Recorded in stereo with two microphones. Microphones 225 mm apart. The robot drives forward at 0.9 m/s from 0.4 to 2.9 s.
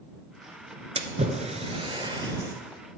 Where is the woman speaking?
No woman speaking in this recording.